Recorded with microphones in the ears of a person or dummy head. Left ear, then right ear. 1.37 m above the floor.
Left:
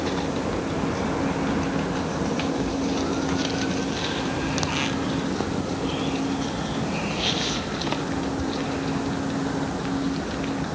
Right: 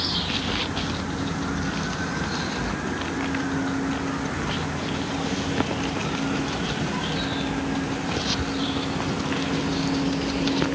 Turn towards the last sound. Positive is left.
No sound to turn to.